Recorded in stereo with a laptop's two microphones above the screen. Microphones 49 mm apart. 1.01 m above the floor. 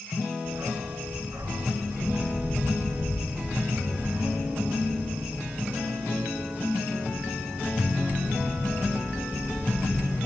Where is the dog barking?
55° right (ahead or behind), 3.5 m.